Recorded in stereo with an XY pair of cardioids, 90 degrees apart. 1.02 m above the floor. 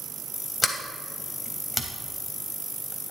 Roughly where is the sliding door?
Ahead left.